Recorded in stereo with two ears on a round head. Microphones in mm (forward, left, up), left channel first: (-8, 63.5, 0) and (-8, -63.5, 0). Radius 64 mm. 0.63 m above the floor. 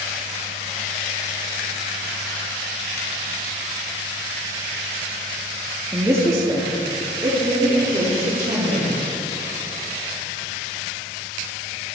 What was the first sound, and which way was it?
A woman speaking, 10° right (ahead or behind).